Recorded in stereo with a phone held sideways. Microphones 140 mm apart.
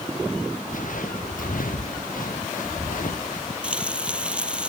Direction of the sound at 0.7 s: 70° left (ahead or behind).